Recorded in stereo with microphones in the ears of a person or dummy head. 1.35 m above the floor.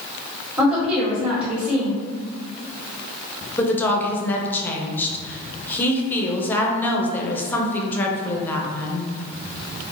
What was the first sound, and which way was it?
A woman speaking, 5° right (ahead or behind).